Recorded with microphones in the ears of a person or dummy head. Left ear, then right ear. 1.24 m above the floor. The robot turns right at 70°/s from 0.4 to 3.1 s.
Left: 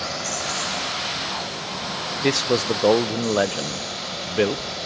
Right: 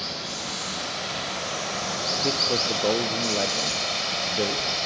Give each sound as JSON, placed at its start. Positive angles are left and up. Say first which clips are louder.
{"t": 0.0, "sound": "running water", "louder": "left 4 dB", "azimuth_deg": 145, "distance_m": 3.5}
{"t": 2.2, "sound": "a man speaking", "louder": "left 4 dB", "azimuth_deg": 65, "distance_m": 0.6}